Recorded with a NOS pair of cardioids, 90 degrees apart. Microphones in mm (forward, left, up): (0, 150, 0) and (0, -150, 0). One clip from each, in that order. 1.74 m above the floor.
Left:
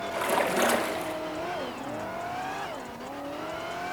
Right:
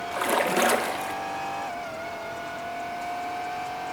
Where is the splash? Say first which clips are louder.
Right 2 dB; 20° right, 2 m.